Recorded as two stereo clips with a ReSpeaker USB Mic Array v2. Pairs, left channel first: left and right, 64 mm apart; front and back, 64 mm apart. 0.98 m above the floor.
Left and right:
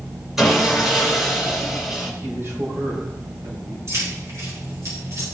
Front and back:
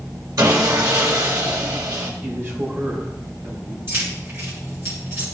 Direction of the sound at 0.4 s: 175° right.